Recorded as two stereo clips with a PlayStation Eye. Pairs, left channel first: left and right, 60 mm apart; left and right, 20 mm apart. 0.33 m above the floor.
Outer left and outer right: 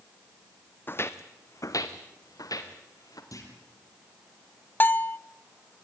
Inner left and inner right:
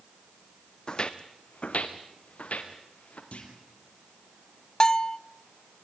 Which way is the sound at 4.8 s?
35° left (ahead or behind).